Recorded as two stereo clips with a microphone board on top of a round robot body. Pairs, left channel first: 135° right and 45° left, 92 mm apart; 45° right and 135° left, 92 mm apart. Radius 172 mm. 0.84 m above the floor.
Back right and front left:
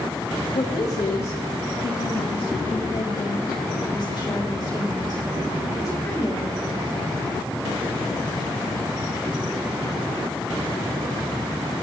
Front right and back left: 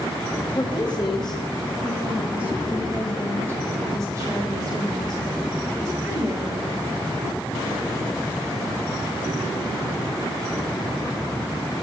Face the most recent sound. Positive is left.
turn(degrees=175)